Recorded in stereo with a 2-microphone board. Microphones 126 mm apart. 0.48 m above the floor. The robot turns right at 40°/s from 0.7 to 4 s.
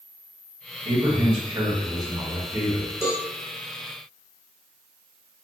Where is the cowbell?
20° left (ahead or behind), 1.4 m; by 3.3 s 25° left (ahead or behind), 1.4 m.